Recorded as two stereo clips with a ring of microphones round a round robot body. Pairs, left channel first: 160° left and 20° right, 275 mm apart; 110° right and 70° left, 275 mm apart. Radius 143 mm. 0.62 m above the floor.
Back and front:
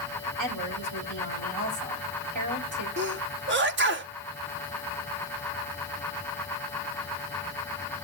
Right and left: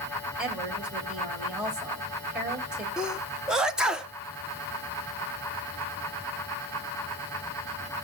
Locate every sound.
0.4 s a woman speaking: 20° right, 3.5 m
3.0 s a sneeze: 20° right, 1.1 m